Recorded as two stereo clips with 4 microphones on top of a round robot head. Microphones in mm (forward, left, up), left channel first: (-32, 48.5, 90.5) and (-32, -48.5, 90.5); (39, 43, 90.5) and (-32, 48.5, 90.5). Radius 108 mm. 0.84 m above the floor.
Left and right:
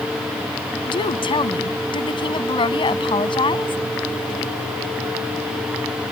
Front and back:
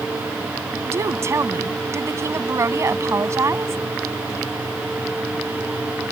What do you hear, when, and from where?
0.9 s a woman speaking: 125° left